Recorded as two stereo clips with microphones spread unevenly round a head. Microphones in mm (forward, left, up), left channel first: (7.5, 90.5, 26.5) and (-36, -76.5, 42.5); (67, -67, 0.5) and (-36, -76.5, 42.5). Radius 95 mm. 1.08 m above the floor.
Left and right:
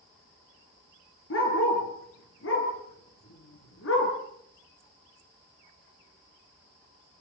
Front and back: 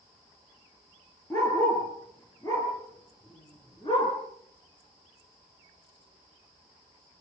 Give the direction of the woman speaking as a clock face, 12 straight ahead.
No woman speaking in this recording.